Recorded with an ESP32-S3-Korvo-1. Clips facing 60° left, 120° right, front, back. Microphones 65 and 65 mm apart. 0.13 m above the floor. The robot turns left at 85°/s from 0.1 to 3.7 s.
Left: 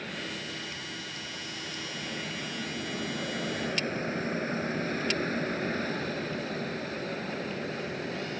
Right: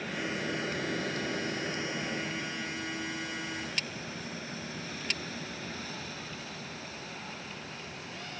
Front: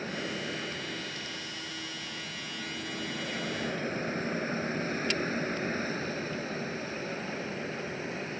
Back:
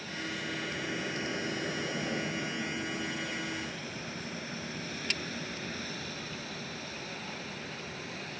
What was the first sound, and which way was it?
An aircraft, 40° right.